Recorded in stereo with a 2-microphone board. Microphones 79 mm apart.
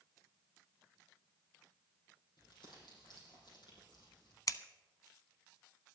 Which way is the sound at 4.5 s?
50° left (ahead or behind).